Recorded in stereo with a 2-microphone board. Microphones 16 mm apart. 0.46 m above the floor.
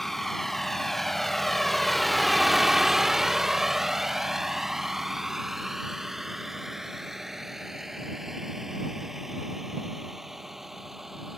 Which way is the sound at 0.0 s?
20° left (ahead or behind).